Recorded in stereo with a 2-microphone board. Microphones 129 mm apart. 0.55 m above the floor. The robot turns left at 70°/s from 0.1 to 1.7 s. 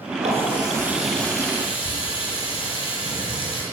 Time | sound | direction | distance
0.2 | a running tap | 120° right | 8.5 m